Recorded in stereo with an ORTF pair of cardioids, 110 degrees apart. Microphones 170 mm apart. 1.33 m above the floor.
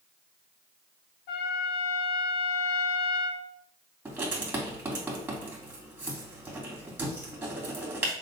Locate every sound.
1.3 s a trumpet: 70° left, 1.8 m
4.0 s writing: 15° right, 3.5 m